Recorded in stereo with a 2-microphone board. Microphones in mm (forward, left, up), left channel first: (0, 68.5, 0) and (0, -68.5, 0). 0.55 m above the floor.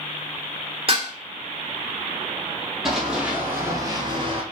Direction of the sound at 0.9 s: 40° right (ahead or behind).